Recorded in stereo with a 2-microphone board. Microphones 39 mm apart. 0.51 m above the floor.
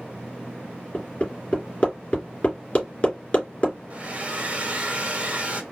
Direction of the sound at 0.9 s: 30° left (ahead or behind).